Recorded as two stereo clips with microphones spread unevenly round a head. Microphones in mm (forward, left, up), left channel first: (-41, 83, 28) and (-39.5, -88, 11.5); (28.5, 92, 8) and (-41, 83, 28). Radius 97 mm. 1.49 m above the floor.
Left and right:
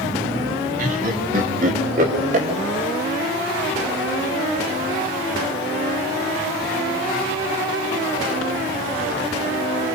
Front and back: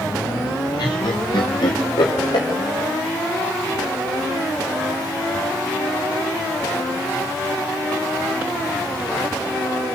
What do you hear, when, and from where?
0.8 s laughter: 40° right, 2.5 m